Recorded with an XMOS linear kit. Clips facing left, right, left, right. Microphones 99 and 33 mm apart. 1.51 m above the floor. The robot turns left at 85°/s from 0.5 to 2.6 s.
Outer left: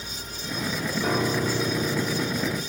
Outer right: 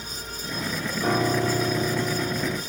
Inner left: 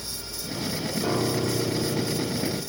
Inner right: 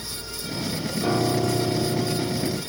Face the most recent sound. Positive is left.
turn(degrees=-145)